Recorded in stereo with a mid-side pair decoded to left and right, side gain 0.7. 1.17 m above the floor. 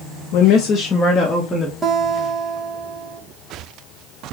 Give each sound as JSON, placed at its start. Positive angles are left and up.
{"t": 0.3, "sound": "a woman speaking", "azimuth_deg": 65, "distance_m": 0.6}
{"t": 1.8, "sound": "a guitar", "azimuth_deg": -20, "distance_m": 1.0}